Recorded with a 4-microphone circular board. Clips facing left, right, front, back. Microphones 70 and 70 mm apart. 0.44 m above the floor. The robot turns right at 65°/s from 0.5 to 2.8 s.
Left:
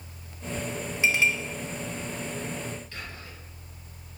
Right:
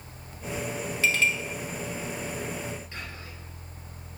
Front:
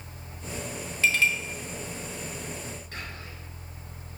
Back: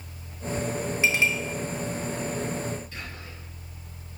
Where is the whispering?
25° right, 2 m.